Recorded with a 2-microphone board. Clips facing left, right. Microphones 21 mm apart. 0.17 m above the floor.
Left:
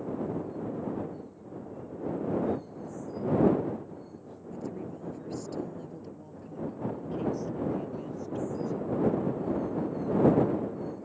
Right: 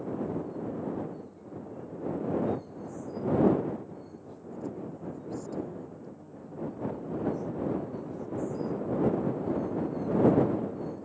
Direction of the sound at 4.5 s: 30° left (ahead or behind).